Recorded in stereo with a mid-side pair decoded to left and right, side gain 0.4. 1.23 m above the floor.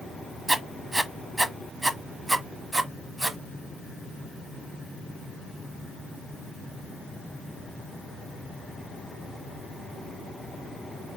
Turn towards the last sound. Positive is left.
turn(degrees=-25)